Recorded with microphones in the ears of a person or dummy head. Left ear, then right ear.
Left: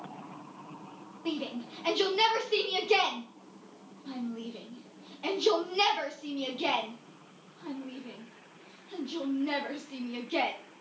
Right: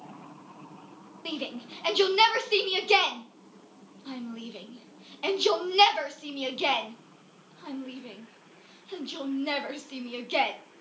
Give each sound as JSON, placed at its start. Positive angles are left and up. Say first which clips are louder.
{"t": 1.2, "sound": "a shout", "louder": "right 1 dB", "side_deg": -35, "distance_m": 1.0}